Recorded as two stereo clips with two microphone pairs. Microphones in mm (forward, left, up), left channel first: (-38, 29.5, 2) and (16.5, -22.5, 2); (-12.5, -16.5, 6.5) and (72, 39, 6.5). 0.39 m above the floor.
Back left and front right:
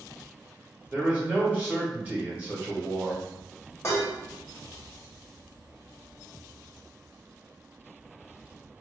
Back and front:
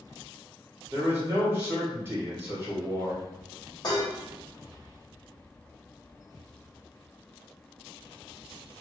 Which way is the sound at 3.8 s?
Straight behind.